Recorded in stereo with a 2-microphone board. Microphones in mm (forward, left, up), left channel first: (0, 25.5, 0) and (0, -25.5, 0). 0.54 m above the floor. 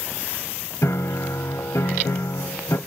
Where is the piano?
65° left (ahead or behind), 0.6 m.